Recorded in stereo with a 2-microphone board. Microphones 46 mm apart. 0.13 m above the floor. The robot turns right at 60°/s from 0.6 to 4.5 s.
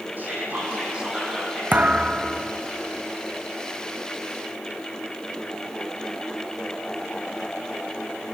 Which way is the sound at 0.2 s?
50° right.